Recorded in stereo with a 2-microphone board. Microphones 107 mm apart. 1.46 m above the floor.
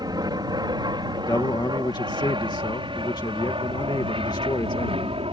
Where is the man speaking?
40° left (ahead or behind).